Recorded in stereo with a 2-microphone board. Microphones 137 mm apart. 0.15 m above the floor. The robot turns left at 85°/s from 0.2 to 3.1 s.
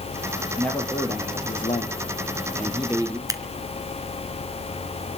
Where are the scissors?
25° right (ahead or behind), 1.5 m.